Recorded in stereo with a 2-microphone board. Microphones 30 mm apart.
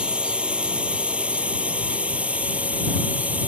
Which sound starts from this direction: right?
A drone, at 0.0 s.